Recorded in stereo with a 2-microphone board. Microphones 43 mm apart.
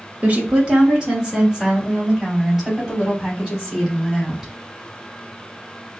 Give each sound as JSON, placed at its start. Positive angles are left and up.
{"t": 0.2, "sound": "a woman speaking", "side_deg": -30, "distance_m": 1.0}